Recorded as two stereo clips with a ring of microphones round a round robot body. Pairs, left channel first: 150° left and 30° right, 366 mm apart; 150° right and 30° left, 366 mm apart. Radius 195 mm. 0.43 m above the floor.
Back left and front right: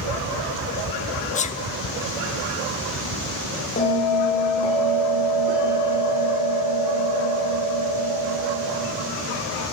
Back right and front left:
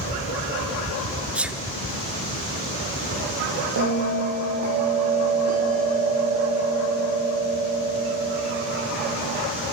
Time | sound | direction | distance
1.4 | a sneeze | 115° left | 0.8 m
3.8 | a bell | 85° left | 9 m